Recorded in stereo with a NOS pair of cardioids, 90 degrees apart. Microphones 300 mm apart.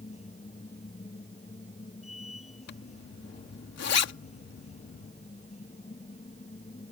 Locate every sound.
0.0 s a machine running: 20° left
2.7 s a zipper: 55° left